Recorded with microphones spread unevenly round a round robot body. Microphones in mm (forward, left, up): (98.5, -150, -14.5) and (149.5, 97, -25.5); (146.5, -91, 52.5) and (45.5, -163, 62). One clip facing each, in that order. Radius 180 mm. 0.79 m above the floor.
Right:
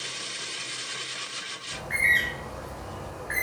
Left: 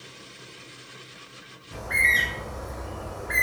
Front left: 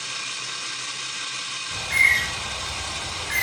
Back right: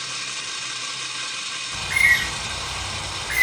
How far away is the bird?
About 1.6 m.